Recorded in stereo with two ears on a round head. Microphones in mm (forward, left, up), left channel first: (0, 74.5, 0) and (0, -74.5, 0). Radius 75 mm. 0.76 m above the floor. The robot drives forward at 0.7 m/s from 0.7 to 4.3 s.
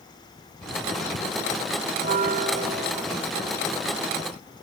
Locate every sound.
2.0 s a bell: 70° right (ahead or behind), 0.7 m; by 3.3 s 30° right (ahead or behind), 1.4 m